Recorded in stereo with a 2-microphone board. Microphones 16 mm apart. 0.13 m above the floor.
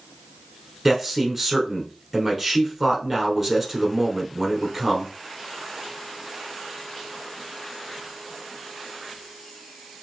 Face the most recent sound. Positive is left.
turn(degrees=-5)  # may be behind; listen again after turning